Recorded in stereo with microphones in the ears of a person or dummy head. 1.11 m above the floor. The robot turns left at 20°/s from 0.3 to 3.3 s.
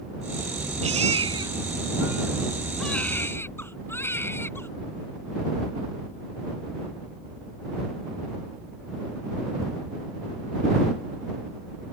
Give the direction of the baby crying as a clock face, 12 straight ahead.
5 o'clock.